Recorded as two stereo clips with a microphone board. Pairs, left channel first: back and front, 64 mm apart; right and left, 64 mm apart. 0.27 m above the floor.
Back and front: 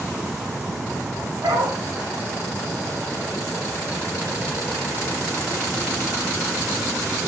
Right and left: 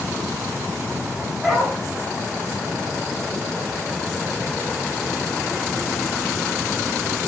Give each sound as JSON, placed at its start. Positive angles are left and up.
{"t": 1.4, "sound": "a dog barking", "azimuth_deg": 5, "distance_m": 7.5}